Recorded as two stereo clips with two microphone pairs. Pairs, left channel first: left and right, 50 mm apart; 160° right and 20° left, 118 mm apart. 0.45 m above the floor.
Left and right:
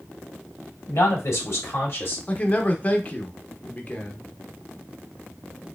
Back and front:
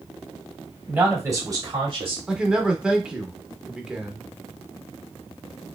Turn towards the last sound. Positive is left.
turn(degrees=95)